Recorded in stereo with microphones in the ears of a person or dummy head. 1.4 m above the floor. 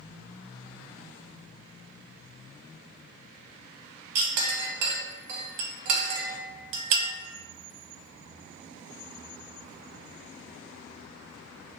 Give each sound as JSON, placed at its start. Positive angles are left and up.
{"t": 4.2, "sound": "a clink", "side_deg": -55, "distance_m": 0.6}